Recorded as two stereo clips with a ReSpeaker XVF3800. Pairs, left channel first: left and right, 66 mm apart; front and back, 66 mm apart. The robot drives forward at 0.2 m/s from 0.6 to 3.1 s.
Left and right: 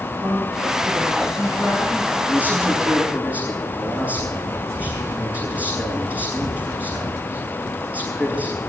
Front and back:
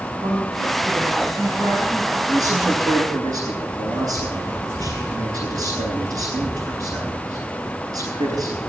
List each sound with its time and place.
0.2 s a woman speaking: 140° right, 6 m; by 2.2 s 145° right, 6 m
2.3 s a man speaking: 160° right, 10 m